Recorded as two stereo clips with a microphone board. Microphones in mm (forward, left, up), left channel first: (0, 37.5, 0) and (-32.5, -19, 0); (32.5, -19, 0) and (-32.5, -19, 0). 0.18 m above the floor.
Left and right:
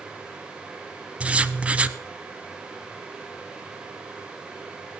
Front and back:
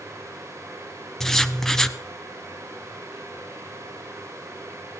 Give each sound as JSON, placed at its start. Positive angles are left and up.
{"t": 1.2, "sound": "writing", "azimuth_deg": -75, "distance_m": 0.6}